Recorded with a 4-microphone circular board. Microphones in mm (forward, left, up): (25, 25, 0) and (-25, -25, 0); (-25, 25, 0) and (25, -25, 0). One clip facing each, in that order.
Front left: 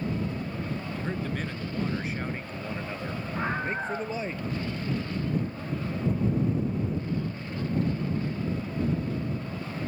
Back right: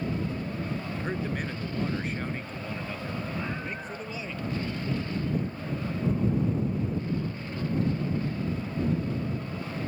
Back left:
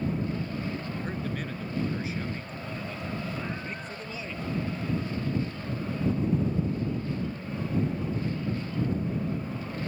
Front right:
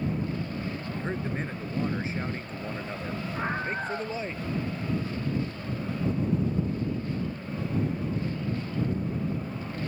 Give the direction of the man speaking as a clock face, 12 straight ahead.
3 o'clock.